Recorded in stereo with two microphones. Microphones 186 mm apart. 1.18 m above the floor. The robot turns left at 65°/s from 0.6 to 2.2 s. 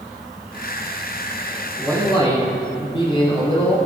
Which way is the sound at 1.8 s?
5° left (ahead or behind).